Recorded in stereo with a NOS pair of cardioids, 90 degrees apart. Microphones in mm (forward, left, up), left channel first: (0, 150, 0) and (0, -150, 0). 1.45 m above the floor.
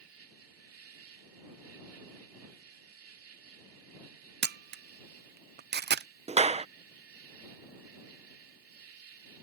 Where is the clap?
20° right.